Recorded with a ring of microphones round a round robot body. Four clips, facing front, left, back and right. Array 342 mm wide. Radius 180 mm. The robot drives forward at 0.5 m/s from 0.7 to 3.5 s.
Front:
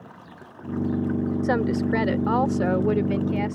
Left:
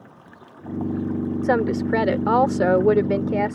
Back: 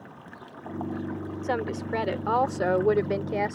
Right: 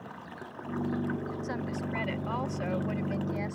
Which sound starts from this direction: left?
A woman speaking, at 1.4 s.